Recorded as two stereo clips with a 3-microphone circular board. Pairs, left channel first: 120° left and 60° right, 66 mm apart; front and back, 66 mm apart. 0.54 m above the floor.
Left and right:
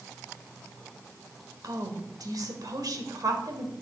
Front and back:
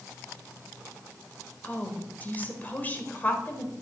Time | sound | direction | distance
1.6 | a woman speaking | 60° right | 1.7 m